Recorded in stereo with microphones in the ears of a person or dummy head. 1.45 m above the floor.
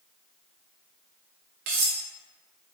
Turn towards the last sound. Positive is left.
turn(degrees=-40)  # may be behind; listen again after turning